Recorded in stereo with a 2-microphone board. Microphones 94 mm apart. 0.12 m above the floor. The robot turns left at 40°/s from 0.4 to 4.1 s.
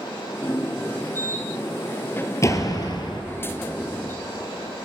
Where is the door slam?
145° left, 2.5 m; by 3.2 s 115° left, 2.5 m.